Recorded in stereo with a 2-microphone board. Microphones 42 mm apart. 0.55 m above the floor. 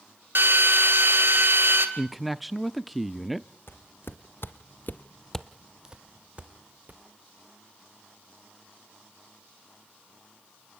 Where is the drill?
60° right (ahead or behind), 2.5 m.